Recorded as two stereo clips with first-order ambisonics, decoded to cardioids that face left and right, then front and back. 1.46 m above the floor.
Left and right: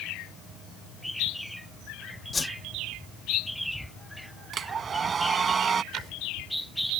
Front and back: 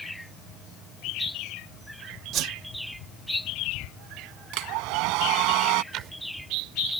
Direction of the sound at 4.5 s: 155° right.